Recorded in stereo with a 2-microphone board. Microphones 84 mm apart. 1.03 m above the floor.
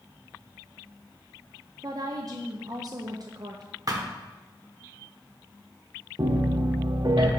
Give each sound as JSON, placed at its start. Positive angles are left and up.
{"t": 1.8, "sound": "a woman speaking", "side_deg": -50, "distance_m": 0.5}
{"t": 3.9, "sound": "a thud", "side_deg": -45, "distance_m": 0.8}
{"t": 6.2, "sound": "a piano", "side_deg": -60, "distance_m": 0.7}